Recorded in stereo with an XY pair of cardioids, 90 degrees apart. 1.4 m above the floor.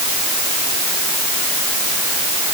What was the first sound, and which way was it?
Only background noise.